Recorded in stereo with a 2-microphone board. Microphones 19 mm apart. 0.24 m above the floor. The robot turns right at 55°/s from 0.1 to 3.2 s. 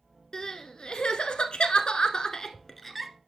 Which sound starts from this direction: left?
Crying, at 0.3 s.